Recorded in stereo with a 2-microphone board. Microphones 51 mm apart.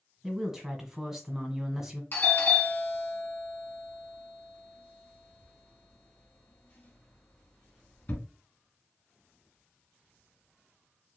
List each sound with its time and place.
0.2 s a woman speaking: 10° right (ahead or behind), 1.6 m
2.1 s a doorbell: 40° left (ahead or behind), 2.0 m